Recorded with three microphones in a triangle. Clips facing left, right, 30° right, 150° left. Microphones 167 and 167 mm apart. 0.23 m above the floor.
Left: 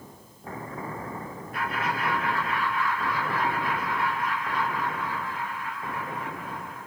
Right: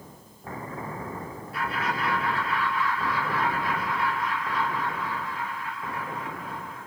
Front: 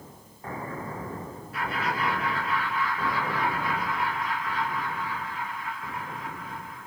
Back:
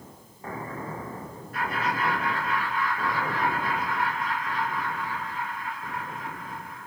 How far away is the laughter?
About 2.5 m.